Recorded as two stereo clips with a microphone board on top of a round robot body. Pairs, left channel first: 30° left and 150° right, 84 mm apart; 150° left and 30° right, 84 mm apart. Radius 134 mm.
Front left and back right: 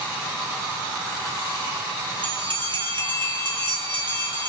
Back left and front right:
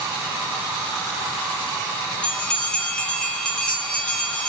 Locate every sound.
2.2 s a bell: 130° right, 4.5 m